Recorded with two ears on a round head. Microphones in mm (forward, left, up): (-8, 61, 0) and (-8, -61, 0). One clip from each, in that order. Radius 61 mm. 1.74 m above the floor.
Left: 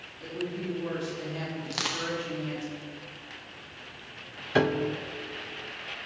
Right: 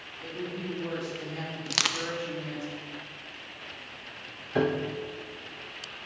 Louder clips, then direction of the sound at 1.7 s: Right 4 dB; 50° right (ahead or behind).